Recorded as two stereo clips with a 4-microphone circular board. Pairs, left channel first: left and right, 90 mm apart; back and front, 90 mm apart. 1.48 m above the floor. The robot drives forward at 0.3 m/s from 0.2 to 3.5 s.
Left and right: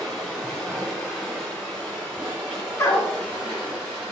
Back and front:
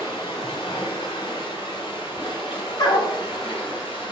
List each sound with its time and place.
0.0 s running water: straight behind, 3 m
2.8 s a dog barking: 145° left, 1.7 m